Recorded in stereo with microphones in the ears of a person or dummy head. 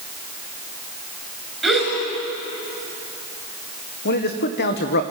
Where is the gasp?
Centre (ahead or behind), 5.5 m.